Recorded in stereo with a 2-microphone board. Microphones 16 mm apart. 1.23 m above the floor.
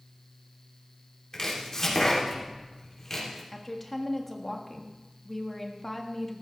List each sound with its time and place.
1.3 s chopping: 35° left (ahead or behind), 3 m
3.5 s a woman speaking: 10° left (ahead or behind), 1.7 m